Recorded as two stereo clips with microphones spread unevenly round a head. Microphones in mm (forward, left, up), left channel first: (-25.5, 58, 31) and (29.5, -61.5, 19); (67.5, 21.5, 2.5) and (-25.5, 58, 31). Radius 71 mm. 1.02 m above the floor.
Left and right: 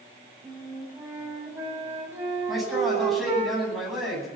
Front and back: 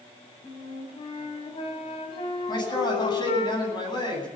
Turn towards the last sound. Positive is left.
turn(degrees=25)